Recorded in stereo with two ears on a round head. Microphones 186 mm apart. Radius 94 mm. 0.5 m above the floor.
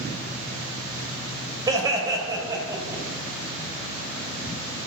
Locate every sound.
1.7 s laughter: 20° right (ahead or behind), 2.5 m; by 3.0 s 15° right (ahead or behind), 3.5 m